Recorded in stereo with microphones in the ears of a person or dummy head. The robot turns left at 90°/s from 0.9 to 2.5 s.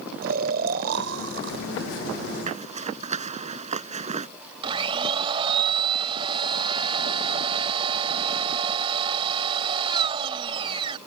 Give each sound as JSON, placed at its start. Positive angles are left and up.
{"t": 0.2, "sound": "snoring", "azimuth_deg": -55}
{"t": 2.5, "sound": "a zipper", "side_deg": -40}
{"t": 4.6, "sound": "a blender", "side_deg": -30}